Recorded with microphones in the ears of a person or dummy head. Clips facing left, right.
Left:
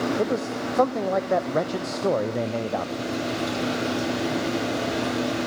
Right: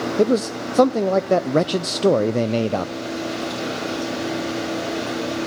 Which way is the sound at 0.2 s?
45° right (ahead or behind).